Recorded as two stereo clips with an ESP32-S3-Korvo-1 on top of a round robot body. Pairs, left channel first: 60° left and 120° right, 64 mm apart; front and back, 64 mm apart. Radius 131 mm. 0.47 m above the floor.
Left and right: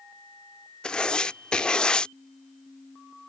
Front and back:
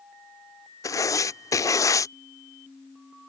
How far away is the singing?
No singing in this recording.